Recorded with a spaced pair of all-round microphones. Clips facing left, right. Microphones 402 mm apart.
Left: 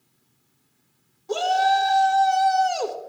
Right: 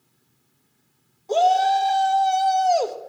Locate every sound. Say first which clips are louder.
1.3 s a shout: right 3 dB; 20° left (ahead or behind), 1.4 m